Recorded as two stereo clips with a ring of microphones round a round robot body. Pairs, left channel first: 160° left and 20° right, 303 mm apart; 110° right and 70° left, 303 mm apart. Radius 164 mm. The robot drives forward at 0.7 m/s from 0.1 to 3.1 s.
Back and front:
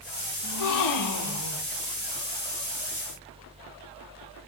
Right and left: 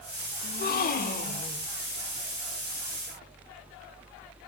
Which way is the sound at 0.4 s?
175° right.